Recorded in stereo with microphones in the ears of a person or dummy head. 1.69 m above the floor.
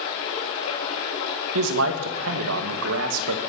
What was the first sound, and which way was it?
Running water, 75° left (ahead or behind).